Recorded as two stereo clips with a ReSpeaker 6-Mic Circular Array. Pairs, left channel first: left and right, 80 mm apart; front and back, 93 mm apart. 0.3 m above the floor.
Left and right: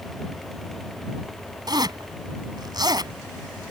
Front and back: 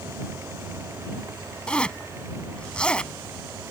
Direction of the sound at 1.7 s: 80° right.